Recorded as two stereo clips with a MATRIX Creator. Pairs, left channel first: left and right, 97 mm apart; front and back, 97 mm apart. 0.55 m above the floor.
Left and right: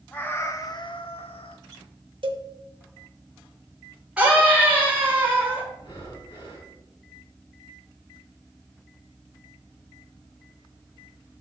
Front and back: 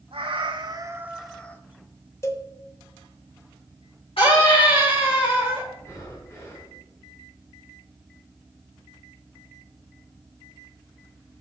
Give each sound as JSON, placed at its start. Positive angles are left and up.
{"t": 0.1, "sound": "a cat meowing", "azimuth_deg": 165, "distance_m": 1.2}
{"t": 2.2, "sound": "a cowbell", "azimuth_deg": -60, "distance_m": 0.9}
{"t": 4.2, "sound": "a scream", "azimuth_deg": -10, "distance_m": 4.0}
{"t": 5.8, "sound": "breathing", "azimuth_deg": 55, "distance_m": 4.0}